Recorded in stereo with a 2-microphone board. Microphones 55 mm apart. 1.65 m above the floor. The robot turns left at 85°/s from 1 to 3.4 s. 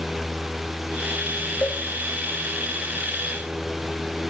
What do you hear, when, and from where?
1.6 s a cowbell: 40° left (ahead or behind), 0.7 m; by 1.8 s 35° left (ahead or behind), 0.7 m